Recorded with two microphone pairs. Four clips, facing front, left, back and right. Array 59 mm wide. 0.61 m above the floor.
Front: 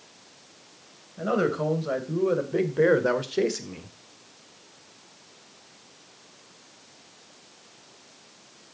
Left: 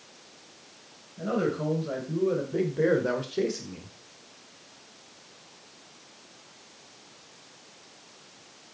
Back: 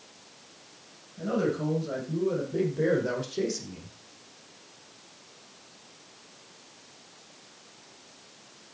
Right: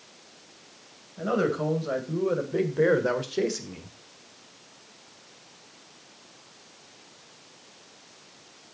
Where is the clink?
I don't hear a clink.